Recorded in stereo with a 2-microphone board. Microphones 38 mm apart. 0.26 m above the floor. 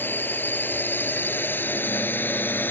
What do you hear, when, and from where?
0.0 s a drone: 60° left (ahead or behind); by 2.7 s 65° left (ahead or behind)